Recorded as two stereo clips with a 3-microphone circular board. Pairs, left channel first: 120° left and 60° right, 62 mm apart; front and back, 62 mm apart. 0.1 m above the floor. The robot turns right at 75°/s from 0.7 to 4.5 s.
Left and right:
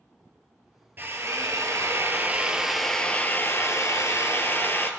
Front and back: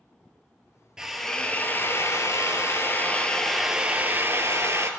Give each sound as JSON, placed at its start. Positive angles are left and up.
{"t": 1.0, "sound": "a drill", "azimuth_deg": -105, "distance_m": 1.3}